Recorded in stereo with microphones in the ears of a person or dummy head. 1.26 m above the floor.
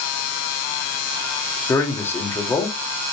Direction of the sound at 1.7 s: 15° left (ahead or behind).